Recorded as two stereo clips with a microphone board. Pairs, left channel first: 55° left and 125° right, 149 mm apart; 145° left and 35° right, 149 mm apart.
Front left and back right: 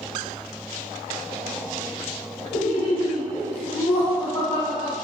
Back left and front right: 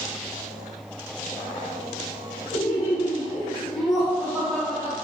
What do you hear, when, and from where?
2.5 s laughter: 150° left, 1.1 m; by 5.0 s 10° left, 1.1 m